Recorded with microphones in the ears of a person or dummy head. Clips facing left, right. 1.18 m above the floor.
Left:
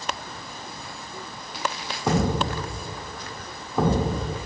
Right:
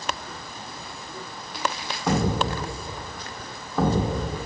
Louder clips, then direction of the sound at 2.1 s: Even; 10° left (ahead or behind).